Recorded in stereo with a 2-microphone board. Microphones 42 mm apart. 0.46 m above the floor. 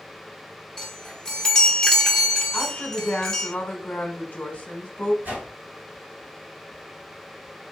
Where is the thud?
No thud in this recording.